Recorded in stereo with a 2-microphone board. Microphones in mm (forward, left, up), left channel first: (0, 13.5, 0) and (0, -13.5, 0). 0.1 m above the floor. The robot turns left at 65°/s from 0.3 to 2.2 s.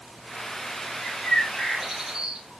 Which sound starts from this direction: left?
A bird, at 1.0 s.